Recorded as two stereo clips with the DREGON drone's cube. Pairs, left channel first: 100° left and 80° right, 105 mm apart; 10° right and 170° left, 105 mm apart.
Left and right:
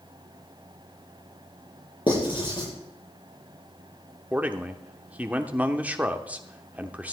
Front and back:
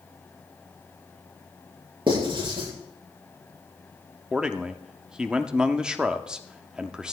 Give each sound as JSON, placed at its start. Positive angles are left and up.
{"t": 2.1, "sound": "writing", "azimuth_deg": 135, "distance_m": 7.5}
{"t": 4.3, "sound": "a man speaking", "azimuth_deg": -125, "distance_m": 0.9}